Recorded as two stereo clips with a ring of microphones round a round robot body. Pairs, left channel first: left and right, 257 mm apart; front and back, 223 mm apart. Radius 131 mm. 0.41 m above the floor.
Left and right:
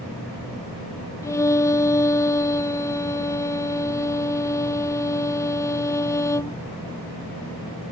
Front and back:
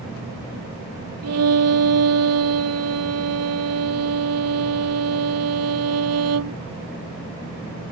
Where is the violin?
170° left.